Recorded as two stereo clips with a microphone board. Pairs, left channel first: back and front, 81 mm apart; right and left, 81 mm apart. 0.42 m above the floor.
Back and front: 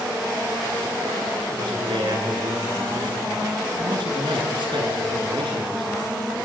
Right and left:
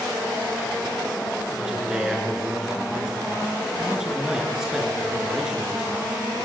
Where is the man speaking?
10° left, 8 m.